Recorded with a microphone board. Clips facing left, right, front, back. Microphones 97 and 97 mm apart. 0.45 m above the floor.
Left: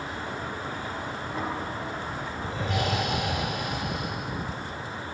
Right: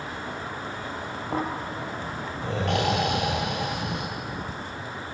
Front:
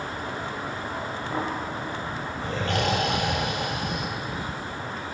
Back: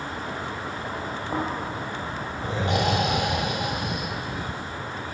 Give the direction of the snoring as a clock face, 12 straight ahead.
4 o'clock.